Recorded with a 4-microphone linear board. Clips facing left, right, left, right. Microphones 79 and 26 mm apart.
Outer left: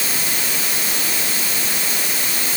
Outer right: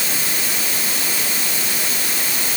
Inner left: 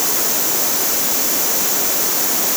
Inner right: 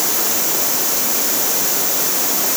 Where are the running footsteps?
No running footsteps in this recording.